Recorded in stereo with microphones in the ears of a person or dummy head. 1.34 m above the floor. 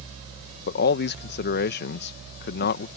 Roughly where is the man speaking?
Left.